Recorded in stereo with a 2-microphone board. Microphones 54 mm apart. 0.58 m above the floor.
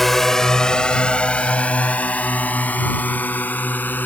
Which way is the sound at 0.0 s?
5° left (ahead or behind).